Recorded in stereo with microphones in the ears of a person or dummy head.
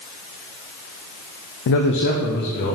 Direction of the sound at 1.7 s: 65° left (ahead or behind).